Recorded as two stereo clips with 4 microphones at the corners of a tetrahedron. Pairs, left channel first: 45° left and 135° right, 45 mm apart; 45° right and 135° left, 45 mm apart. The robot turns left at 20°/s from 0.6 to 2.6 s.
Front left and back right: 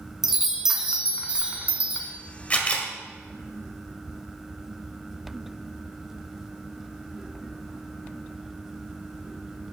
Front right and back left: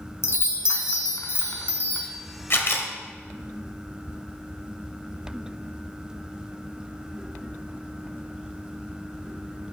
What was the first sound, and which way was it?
A chime, 55° right.